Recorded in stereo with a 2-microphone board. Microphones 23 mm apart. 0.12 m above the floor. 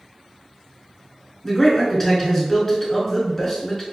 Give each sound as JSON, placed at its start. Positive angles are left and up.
{"t": 1.4, "sound": "a man speaking", "side_deg": 20, "distance_m": 1.1}